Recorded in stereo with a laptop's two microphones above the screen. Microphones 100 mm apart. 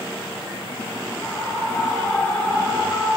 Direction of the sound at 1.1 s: 25° left (ahead or behind).